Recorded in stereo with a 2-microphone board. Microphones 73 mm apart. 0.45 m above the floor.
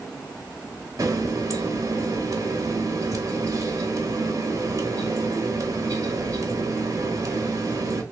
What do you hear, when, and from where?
1.0 s a running tap: 50° right (ahead or behind), 1.1 m